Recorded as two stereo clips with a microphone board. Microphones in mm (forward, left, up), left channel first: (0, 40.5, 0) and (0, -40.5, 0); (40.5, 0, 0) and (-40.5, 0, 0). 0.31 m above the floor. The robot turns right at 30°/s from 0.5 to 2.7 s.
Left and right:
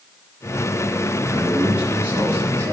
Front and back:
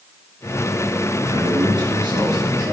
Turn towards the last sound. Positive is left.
turn(degrees=-140)